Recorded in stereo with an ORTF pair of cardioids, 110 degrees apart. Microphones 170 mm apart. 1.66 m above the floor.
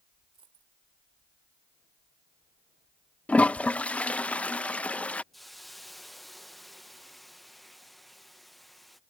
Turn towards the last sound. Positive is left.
turn(degrees=0)